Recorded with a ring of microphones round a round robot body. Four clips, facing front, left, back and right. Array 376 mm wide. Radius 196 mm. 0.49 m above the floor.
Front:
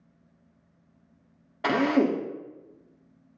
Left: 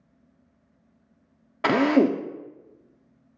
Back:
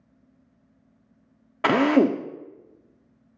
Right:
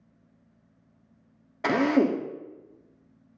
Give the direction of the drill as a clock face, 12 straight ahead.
7 o'clock.